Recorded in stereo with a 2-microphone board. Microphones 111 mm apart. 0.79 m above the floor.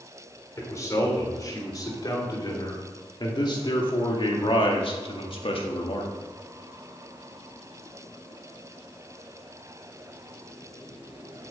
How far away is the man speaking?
About 3.5 m.